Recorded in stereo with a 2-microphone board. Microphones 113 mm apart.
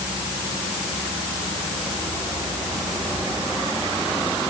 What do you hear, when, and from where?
Only background noise.